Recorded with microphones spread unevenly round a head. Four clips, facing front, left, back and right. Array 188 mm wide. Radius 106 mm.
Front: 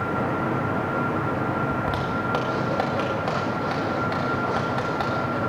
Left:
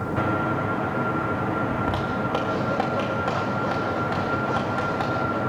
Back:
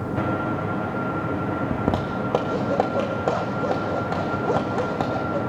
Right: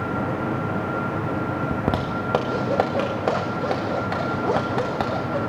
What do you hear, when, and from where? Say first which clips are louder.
1.7 s a zipper: right 1 dB, back 1 dB; 135° right, 1.8 m